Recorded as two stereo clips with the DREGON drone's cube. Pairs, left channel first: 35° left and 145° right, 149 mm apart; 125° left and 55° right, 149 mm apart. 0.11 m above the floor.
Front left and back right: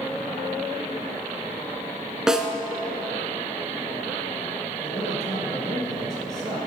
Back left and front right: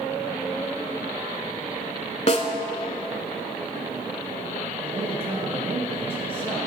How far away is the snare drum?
About 0.8 m.